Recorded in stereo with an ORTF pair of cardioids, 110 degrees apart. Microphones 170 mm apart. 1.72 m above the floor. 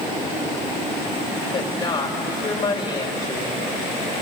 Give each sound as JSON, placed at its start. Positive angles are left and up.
{"t": 1.5, "sound": "a woman speaking", "azimuth_deg": 25, "distance_m": 4.0}